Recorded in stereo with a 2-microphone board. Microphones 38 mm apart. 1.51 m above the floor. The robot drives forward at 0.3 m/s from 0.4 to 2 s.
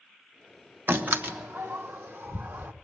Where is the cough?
I don't hear a cough.